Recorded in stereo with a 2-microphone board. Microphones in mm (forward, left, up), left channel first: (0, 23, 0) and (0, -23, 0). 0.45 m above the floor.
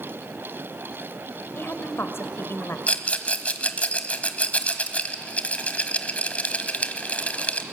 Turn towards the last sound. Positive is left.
turn(degrees=30)  # may be behind; listen again after turning